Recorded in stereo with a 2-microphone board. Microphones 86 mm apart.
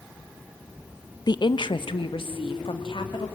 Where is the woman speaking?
50° left (ahead or behind), 0.6 m; by 3.3 s 75° left (ahead or behind), 2 m.